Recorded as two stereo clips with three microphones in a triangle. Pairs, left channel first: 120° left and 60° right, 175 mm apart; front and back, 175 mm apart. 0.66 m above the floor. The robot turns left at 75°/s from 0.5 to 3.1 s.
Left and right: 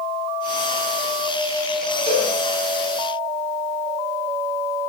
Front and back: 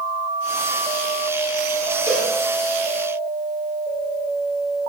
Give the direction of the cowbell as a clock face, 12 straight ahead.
8 o'clock.